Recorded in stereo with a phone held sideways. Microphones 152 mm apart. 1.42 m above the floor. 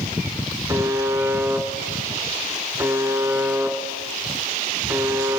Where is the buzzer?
20° right (ahead or behind), 3.5 m.